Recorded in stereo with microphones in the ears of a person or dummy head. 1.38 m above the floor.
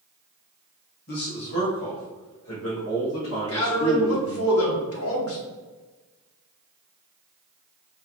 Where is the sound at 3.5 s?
75° left (ahead or behind), 1.5 m.